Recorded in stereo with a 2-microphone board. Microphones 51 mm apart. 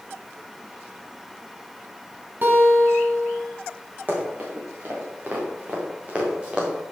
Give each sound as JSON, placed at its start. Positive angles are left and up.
{"t": 2.4, "sound": "a guitar", "side_deg": -40, "distance_m": 1.7}
{"t": 4.1, "sound": "running footsteps", "side_deg": -40, "distance_m": 5.0}